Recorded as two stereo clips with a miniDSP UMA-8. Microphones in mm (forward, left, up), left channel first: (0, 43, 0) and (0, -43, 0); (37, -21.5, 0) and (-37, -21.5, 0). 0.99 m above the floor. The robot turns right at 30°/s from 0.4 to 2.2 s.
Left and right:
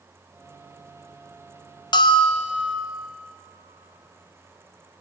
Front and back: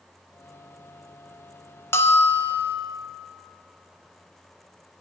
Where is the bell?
55° left, 0.6 m; by 2.8 s 65° left, 0.6 m.